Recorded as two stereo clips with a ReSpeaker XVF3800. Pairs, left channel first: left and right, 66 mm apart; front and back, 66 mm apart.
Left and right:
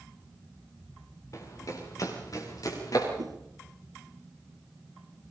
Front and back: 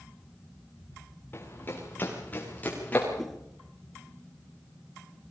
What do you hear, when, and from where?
1.3 s running footsteps: 55° left, 8 m; by 3.1 s 65° left, 9.5 m
3.2 s a whoosh: 90° right, 3 m